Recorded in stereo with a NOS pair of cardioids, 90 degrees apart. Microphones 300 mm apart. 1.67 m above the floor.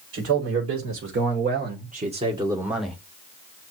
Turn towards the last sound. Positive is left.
turn(degrees=5)